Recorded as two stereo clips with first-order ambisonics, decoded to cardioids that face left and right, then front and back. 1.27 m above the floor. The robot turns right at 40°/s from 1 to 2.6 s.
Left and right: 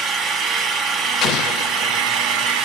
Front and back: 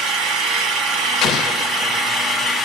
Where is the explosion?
50° left, 0.9 m; by 2.0 s 85° left, 0.9 m.